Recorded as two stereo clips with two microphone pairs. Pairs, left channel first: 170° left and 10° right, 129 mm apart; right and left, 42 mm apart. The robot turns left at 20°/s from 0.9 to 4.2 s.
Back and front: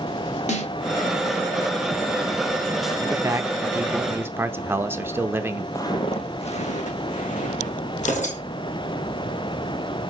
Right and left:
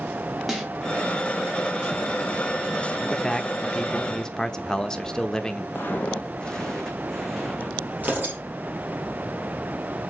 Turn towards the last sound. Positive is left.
turn(degrees=145)